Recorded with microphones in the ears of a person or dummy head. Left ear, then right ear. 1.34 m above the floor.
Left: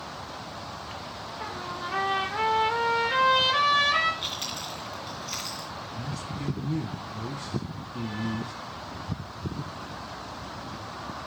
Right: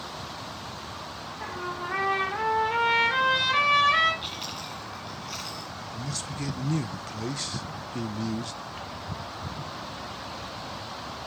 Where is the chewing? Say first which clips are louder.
Left 2 dB; 10° left (ahead or behind), 2.5 m.